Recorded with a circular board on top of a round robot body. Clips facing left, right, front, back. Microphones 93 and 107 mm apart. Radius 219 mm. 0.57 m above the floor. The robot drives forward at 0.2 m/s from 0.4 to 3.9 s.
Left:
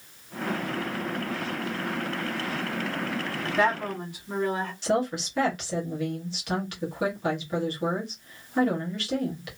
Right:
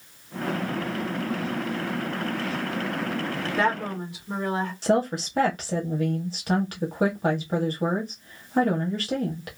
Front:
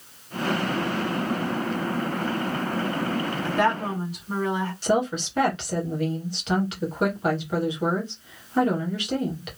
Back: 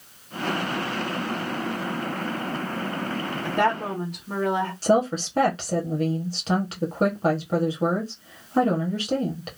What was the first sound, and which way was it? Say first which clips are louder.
A woman speaking: left 1 dB, back 1 dB; 165° right.